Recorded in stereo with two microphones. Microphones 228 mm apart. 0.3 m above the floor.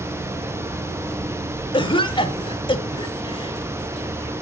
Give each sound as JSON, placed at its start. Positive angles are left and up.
{"t": 1.7, "sound": "a cough", "side_deg": 20, "distance_m": 1.0}